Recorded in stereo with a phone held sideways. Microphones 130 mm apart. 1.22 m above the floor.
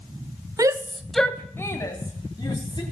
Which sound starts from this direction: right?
A shout, at 0.6 s.